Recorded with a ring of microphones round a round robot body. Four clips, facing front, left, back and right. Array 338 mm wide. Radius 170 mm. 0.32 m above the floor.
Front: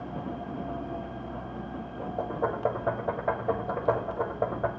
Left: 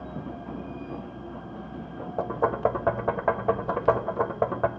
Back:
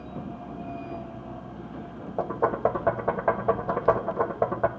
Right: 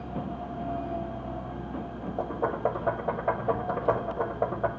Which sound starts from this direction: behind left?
Knocking, at 2.2 s.